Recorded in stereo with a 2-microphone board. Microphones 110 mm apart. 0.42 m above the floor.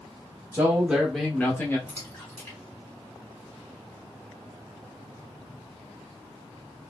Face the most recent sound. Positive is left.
turn(degrees=20)  # may be behind; listen again after turning